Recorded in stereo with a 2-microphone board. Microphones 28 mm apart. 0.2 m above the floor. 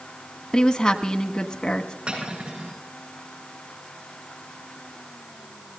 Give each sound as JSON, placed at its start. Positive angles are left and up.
{"t": 0.5, "sound": "a woman speaking", "side_deg": 25, "distance_m": 1.4}
{"t": 2.1, "sound": "cutlery clinking", "side_deg": -45, "distance_m": 7.0}